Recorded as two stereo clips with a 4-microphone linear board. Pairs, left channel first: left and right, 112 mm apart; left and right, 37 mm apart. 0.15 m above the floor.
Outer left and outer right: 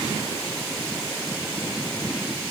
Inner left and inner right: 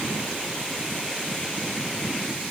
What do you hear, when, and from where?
Only background noise.